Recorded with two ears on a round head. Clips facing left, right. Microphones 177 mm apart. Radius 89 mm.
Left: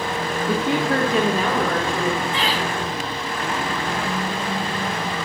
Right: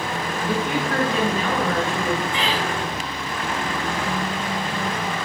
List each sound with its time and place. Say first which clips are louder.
0.5 s a woman speaking: left 3 dB; 25° left (ahead or behind), 1.4 m; by 2.2 s 40° left (ahead or behind), 3.5 m
2.3 s laughter: left 1 dB; 30° left (ahead or behind), 5.5 m